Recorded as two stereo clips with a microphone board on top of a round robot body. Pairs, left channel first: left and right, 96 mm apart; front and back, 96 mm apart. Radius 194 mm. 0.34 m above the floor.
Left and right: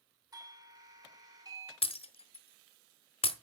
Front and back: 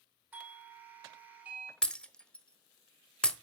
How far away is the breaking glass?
About 1.2 m.